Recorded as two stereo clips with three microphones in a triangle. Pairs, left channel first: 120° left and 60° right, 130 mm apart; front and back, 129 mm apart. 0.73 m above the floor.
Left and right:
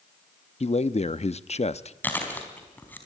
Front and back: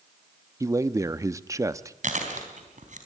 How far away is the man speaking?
About 0.7 m.